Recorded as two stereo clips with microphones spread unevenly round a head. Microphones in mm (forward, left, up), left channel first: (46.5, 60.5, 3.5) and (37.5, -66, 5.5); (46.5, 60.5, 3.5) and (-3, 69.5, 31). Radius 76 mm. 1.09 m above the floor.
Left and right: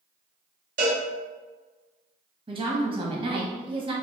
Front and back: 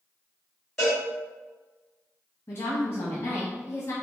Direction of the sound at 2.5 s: 50° right.